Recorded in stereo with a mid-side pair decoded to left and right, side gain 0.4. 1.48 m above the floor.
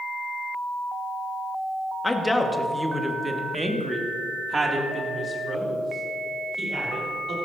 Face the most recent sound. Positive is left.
turn(degrees=-45)